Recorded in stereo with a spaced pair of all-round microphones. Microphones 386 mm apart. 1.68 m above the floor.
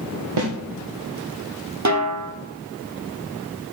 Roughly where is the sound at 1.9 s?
Right.